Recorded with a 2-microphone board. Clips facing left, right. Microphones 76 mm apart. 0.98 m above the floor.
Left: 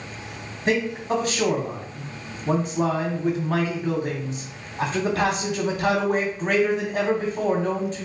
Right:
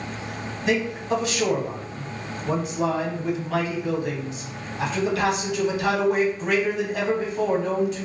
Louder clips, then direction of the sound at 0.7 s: Left 1 dB; 35° left (ahead or behind).